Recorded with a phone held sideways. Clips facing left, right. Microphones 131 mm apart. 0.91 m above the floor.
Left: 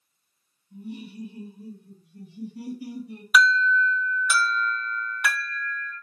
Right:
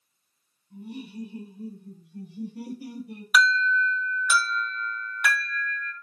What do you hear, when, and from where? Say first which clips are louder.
0.7 s laughter: even; 65° right (ahead or behind), 3 m; by 3.2 s 55° right (ahead or behind), 4.5 m
3.3 s an alarm: left 2 dB; centre (ahead or behind), 2 m